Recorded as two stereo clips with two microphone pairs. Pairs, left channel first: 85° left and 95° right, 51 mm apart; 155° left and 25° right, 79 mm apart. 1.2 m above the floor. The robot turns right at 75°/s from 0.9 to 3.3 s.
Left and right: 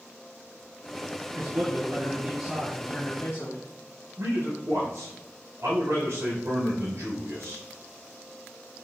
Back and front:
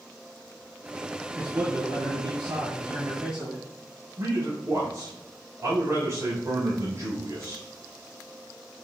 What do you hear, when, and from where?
1.4 s a man speaking: 100° right, 2 m; by 3.6 s 45° left, 2 m
4.2 s a man speaking: 75° right, 4 m